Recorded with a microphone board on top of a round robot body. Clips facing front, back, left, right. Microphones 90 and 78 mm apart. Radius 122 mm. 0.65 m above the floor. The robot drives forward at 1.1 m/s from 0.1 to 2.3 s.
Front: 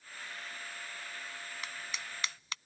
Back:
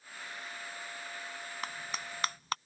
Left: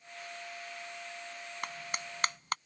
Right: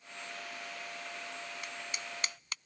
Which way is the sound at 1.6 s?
130° left.